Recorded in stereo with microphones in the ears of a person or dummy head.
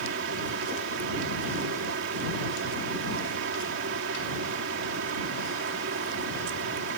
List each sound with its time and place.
0.0 s a fan: 70° right (ahead or behind)